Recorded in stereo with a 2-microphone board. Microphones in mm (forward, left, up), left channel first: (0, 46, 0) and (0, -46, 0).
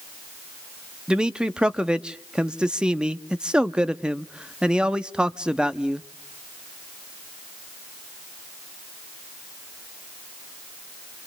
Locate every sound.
1.1 s a man speaking: 10° right (ahead or behind), 0.6 m